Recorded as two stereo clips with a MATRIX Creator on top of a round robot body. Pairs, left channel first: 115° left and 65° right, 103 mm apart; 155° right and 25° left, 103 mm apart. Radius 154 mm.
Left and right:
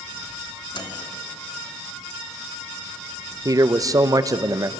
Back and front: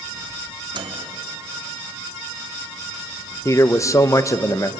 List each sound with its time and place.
0.7 s a microwave: 65° left, 1.5 m
3.5 s a man speaking: 110° right, 0.9 m